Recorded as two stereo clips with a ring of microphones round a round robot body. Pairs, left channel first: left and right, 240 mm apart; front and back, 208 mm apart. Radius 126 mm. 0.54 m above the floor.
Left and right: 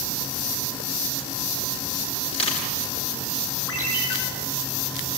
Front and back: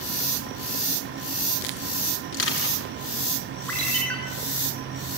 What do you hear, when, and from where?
2.3 s crushing: 20° left, 6 m
3.7 s a ringtone: 85° left, 5.5 m